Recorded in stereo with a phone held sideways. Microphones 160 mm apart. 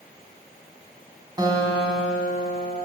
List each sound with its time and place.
1.4 s a guitar: 25° right (ahead or behind), 1.5 m